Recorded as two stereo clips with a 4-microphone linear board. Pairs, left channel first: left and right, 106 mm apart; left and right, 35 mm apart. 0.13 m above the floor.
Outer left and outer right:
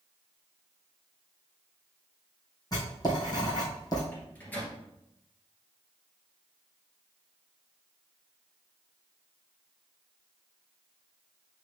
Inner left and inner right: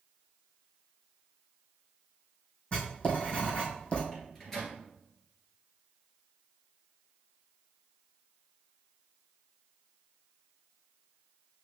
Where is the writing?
40° left (ahead or behind), 2.5 m.